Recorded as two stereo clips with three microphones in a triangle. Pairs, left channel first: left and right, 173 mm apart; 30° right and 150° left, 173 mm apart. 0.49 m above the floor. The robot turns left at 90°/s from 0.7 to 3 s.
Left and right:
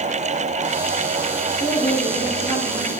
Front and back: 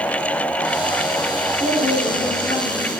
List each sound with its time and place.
1.6 s a woman speaking: 65° left, 5 m; by 3.0 s 60° right, 5 m